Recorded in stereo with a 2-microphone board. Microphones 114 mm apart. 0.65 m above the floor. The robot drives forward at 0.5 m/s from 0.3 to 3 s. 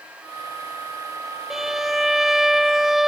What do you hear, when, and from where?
1.5 s a violin: 5° right (ahead or behind); by 3.1 s centre (ahead or behind)